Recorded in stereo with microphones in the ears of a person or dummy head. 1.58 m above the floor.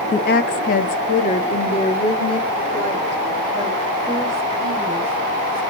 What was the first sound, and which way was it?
A woman speaking, 40° left (ahead or behind).